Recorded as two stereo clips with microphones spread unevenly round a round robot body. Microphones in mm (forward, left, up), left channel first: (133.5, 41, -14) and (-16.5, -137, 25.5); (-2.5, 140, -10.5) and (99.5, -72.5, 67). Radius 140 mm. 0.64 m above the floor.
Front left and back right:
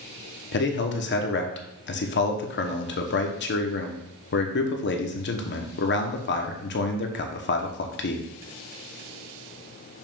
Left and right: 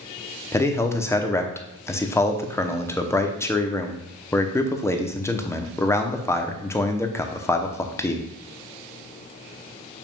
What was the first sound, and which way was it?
A man speaking, 55° left.